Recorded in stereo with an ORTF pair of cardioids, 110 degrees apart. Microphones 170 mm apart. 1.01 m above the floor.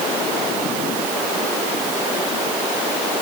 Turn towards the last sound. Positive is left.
No sound to turn to.